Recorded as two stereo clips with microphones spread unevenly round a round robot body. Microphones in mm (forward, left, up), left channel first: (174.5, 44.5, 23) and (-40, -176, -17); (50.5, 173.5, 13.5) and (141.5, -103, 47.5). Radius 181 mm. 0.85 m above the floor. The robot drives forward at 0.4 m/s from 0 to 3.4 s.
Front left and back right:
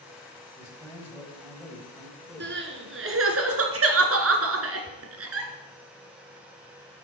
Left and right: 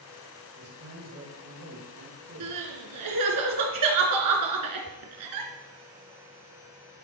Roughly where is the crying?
Right.